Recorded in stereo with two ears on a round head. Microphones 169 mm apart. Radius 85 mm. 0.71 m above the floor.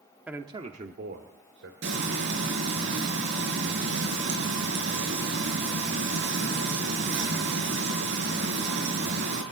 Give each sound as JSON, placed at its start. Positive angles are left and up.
{"t": 0.3, "sound": "a man speaking", "side_deg": -5, "distance_m": 1.2}
{"t": 1.8, "sound": "frying", "side_deg": -70, "distance_m": 6.5}